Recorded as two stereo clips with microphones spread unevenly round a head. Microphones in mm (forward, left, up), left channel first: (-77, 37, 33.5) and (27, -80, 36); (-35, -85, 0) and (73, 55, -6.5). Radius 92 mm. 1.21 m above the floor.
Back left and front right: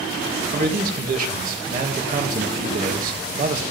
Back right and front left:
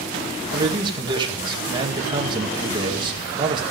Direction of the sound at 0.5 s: 10° right.